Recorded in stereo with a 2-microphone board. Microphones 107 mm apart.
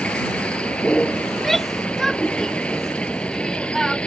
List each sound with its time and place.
0.0 s a vehicle: 10° left (ahead or behind)
1.3 s a shout: centre (ahead or behind)